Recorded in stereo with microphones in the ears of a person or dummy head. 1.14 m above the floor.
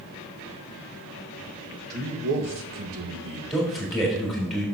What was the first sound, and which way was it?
A man speaking, 40° right (ahead or behind).